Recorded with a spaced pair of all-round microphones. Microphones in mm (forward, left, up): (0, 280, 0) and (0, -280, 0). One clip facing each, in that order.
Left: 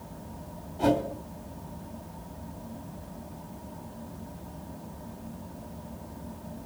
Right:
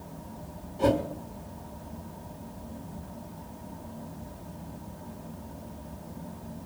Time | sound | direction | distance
0.8 | a whoosh | 5° left (ahead or behind) | 2 m